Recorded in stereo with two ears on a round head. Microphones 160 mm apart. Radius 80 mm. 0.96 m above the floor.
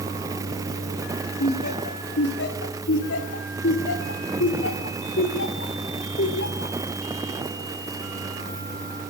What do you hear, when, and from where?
1.4 s laughter: 60° left (ahead or behind), 3 m